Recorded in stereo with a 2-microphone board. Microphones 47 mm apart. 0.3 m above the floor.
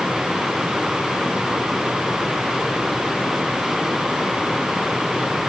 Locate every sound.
Only background noise.